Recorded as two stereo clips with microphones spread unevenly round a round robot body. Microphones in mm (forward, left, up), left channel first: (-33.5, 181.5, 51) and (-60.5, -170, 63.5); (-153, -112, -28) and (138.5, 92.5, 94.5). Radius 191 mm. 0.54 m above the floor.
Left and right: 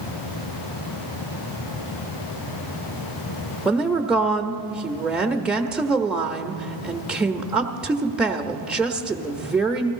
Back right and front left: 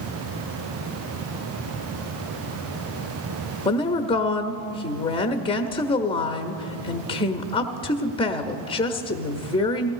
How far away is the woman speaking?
About 0.9 m.